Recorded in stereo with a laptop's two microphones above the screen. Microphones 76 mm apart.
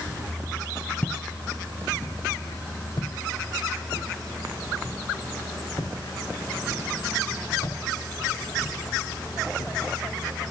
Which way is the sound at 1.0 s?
20° left (ahead or behind).